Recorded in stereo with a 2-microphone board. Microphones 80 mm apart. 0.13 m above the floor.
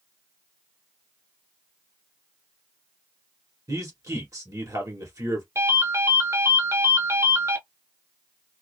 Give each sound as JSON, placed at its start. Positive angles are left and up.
{"t": 3.7, "sound": "a man speaking", "side_deg": -45, "distance_m": 1.6}
{"t": 5.5, "sound": "a ringtone", "side_deg": -35, "distance_m": 0.8}